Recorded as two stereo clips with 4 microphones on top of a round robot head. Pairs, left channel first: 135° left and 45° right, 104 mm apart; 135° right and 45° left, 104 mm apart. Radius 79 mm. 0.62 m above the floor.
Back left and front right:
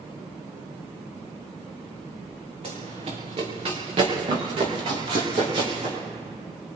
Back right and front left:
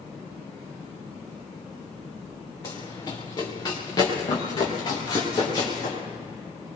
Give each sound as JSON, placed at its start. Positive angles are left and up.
{"t": 2.6, "sound": "running footsteps", "azimuth_deg": -80, "distance_m": 2.0}